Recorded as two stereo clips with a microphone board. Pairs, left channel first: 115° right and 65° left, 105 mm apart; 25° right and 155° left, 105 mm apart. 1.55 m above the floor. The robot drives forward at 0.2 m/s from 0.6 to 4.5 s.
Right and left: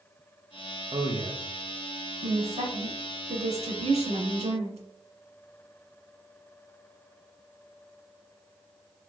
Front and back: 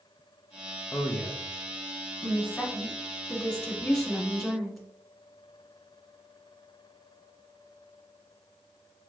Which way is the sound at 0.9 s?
45° left.